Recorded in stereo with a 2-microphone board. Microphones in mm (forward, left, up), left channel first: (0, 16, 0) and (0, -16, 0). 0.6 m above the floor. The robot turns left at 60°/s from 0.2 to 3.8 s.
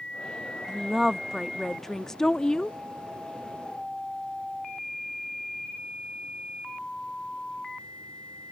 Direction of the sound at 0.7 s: 15° right (ahead or behind).